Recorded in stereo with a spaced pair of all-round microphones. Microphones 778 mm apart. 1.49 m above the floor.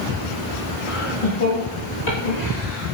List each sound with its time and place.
0.9 s laughter: 40° left (ahead or behind), 3 m; by 2.9 s 70° left (ahead or behind), 3 m